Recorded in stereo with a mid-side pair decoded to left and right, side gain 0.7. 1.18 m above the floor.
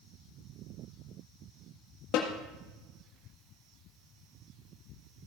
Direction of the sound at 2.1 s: 60° left.